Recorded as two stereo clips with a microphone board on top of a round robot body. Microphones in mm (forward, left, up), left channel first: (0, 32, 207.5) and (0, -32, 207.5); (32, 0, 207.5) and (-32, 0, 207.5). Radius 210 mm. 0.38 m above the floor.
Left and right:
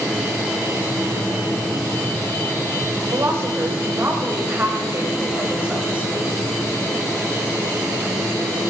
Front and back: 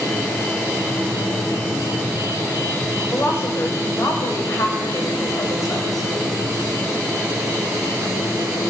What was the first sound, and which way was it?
A woman speaking, 45° right.